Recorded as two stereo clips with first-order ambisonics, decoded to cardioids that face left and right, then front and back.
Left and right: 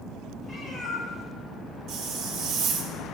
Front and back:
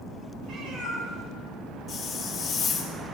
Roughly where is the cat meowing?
Behind.